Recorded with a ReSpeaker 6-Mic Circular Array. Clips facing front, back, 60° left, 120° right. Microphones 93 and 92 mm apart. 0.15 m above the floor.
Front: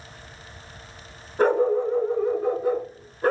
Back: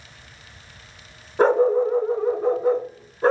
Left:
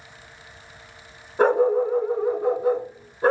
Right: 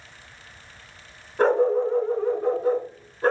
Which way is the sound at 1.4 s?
125° left.